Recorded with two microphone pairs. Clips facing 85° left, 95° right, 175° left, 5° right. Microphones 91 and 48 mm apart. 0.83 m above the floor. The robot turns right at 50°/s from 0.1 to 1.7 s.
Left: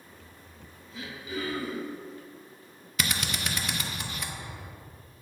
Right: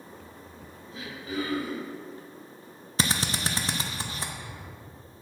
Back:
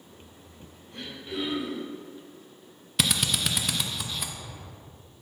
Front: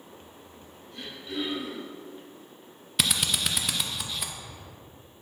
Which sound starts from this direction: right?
A drill, at 3.0 s.